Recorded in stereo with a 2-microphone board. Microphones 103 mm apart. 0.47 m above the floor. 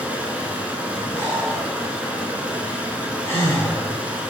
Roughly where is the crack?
No crack in this recording.